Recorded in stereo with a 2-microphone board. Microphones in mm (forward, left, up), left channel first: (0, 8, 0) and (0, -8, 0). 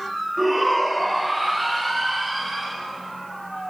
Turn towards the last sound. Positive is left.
turn(degrees=5)  # may be behind; listen again after turning